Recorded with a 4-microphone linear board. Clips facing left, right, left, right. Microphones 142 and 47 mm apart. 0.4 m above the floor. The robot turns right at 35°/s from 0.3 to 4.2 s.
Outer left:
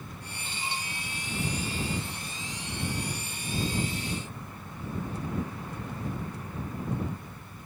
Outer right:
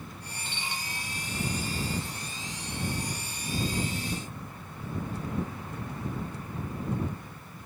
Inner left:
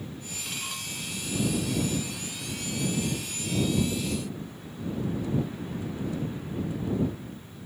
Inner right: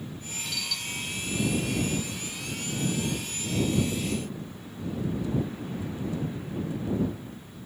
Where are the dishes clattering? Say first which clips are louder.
Outer left 2 dB, inner right 2 dB; 40° left (ahead or behind); by 0.9 s 25° left (ahead or behind).